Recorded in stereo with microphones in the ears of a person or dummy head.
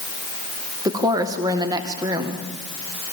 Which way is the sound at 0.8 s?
15° right (ahead or behind).